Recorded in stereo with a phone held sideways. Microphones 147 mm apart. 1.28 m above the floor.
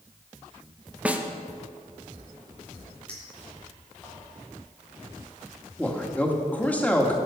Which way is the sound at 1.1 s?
10° right (ahead or behind).